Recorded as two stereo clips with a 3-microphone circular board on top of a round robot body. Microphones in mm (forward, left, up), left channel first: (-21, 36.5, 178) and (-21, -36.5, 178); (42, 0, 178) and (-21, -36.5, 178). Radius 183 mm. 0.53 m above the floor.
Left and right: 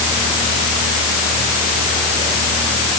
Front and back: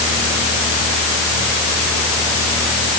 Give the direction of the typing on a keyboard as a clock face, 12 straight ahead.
No typing on a keyboard in this recording.